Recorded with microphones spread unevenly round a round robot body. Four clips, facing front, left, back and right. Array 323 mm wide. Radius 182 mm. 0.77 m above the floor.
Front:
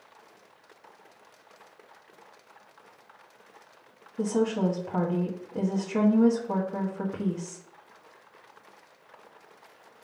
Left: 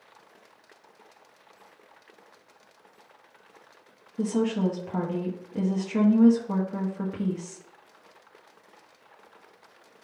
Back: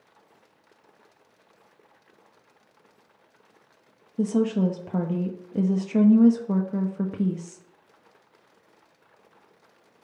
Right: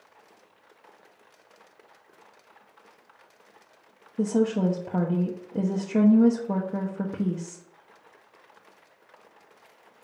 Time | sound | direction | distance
4.2 | a woman speaking | 160° right | 1.0 m